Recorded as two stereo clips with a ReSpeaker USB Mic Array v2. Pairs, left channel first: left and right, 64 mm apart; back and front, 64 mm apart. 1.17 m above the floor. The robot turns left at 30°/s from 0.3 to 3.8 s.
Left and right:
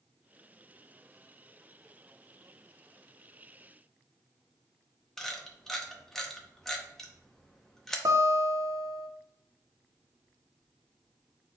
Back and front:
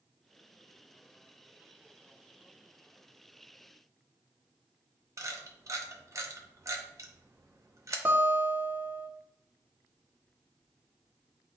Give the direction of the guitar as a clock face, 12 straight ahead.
2 o'clock.